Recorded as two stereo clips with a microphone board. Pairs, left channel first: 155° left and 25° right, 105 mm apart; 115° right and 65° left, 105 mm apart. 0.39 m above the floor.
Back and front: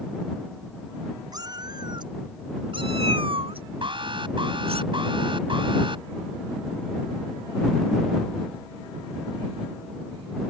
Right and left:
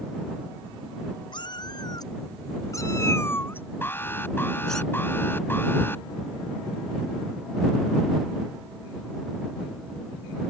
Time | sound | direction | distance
1.3 | a cat meowing | 70° right | ?
3.8 | an alarm | 45° right | ?